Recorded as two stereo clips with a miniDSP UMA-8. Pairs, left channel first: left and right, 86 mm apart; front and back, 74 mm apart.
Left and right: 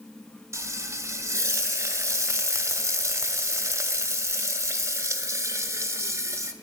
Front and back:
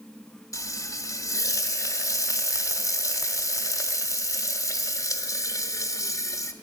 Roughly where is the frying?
Ahead right.